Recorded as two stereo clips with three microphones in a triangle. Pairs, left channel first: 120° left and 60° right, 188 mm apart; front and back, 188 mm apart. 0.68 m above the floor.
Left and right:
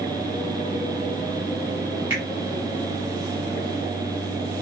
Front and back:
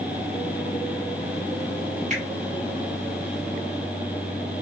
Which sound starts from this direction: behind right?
A finger snap, at 2.1 s.